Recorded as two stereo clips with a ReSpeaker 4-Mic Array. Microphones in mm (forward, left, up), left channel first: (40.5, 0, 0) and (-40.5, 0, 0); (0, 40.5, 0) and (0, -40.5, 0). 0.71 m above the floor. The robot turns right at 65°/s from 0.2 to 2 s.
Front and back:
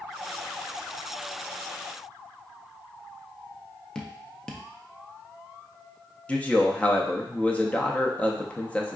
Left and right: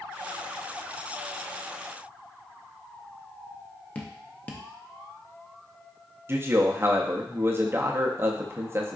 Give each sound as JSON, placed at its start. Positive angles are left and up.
{"t": 4.0, "sound": "dripping", "azimuth_deg": 60, "distance_m": 0.6}
{"t": 6.3, "sound": "a man speaking", "azimuth_deg": -60, "distance_m": 0.6}